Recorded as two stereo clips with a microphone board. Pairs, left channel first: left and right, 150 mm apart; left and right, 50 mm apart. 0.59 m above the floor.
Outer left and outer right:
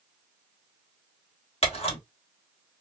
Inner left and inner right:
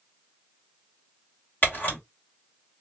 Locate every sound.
1.6 s a camera shutter: 40° left (ahead or behind), 1.2 m